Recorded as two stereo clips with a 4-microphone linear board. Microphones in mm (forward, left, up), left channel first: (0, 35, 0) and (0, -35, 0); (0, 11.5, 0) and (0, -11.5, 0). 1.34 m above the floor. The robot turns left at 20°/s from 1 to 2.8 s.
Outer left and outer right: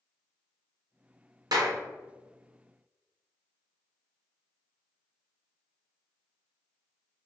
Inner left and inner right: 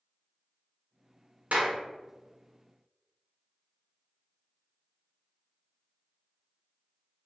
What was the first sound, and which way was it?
A clap, 65° right (ahead or behind).